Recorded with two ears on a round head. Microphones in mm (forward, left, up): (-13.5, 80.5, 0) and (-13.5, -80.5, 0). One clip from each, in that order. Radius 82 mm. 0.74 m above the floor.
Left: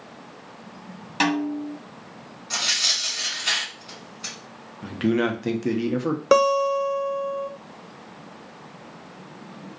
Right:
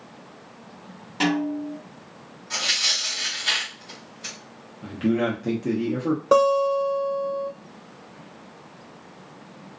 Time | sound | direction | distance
1.2 | a snare drum | 45° left (ahead or behind) | 1.0 m
2.5 | tearing paper | 20° left (ahead or behind) | 1.5 m
4.8 | a man speaking | 40° left (ahead or behind) | 0.6 m
6.3 | a guitar | 60° left (ahead or behind) | 0.8 m